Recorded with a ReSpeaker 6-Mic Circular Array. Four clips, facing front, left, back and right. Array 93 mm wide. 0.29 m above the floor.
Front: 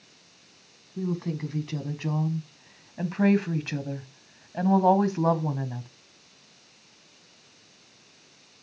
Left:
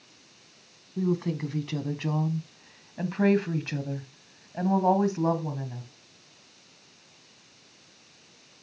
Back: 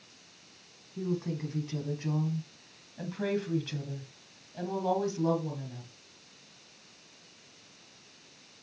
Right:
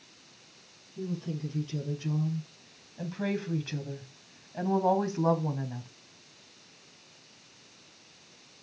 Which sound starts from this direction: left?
A woman speaking, at 1.0 s.